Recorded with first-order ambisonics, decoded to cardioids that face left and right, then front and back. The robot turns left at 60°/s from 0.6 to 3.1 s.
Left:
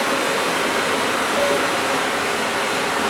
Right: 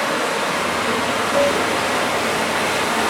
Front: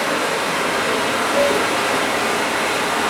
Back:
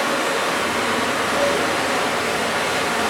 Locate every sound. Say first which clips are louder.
0.0 s running water: even, front 1 dB; 75° left, 1.5 m; by 3.1 s 75° right, 1.5 m
1.3 s dishes clattering: right 3 dB, front 3 dB; 90° right, 0.8 m; by 1.6 s 105° right, 0.8 m